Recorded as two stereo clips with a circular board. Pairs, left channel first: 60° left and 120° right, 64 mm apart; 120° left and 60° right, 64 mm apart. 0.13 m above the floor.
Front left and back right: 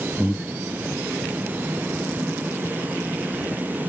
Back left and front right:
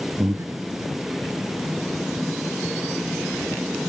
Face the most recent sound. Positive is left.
turn(degrees=-30)